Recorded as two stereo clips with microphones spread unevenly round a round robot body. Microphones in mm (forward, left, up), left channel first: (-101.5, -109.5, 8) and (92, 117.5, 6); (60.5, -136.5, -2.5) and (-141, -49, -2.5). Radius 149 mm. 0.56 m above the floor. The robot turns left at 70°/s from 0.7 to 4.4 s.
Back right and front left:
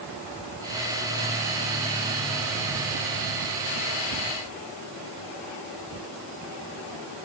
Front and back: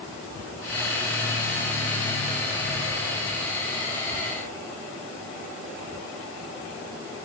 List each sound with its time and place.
Only background noise.